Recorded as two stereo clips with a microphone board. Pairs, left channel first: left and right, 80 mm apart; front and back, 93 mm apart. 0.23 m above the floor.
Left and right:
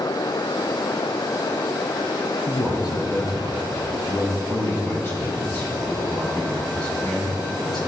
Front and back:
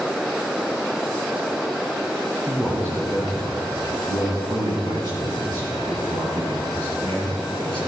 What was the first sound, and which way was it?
A man speaking, 115° left.